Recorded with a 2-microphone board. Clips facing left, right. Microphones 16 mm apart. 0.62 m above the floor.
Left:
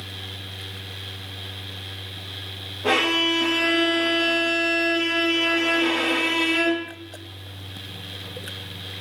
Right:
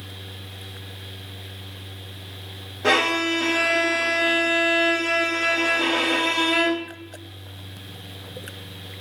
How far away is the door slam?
No door slam in this recording.